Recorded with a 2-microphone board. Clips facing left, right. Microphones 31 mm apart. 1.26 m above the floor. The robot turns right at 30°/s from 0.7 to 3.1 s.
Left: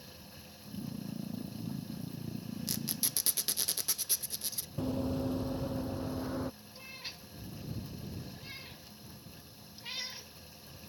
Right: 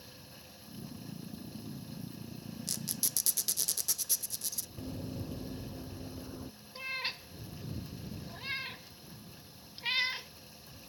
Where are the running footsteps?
55° left (ahead or behind); by 6.5 s 65° left (ahead or behind).